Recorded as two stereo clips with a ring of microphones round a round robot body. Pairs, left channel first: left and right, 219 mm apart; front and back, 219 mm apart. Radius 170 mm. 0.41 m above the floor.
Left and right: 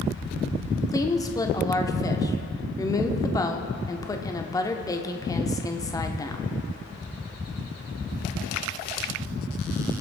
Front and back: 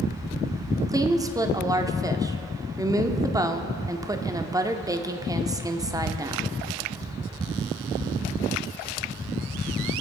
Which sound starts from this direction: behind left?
A woman speaking, at 0.9 s.